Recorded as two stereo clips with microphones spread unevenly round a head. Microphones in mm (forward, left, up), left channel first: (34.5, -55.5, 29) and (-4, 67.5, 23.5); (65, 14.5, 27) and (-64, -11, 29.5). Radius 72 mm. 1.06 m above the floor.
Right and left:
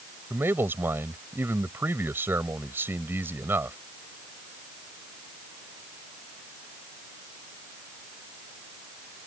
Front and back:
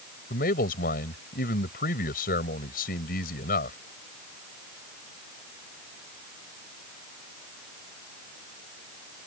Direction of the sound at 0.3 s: 35° left.